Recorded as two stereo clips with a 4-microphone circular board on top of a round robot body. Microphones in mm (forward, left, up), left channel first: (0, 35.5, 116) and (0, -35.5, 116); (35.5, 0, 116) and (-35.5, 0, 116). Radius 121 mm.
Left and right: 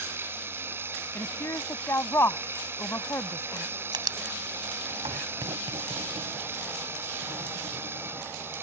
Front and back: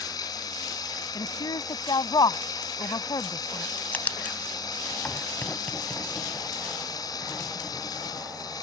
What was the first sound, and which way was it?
Running water, 30° right.